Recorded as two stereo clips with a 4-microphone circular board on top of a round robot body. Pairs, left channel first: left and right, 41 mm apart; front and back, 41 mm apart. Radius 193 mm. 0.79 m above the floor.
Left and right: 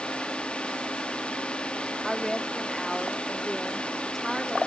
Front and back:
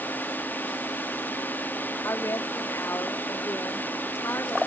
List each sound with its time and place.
0.0 s a drone: 30° left
2.0 s a woman speaking: straight ahead